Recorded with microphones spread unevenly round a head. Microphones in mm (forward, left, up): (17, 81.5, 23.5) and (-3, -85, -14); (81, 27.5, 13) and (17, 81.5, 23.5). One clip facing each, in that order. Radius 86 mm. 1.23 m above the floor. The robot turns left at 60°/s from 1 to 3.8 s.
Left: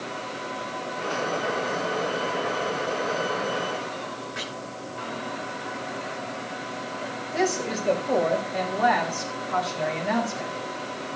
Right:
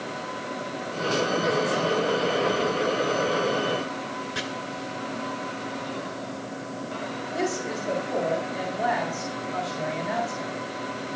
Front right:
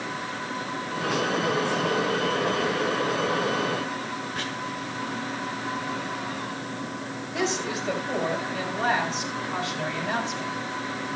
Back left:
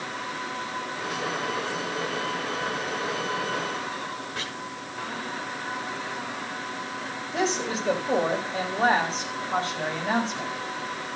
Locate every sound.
4.3 s chopping: 145° right, 9 m
7.3 s a woman speaking: 90° left, 6 m